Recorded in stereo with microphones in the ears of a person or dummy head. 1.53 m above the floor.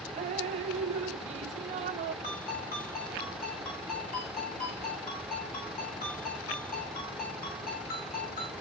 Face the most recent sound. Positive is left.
turn(degrees=35)  # may be behind; listen again after turning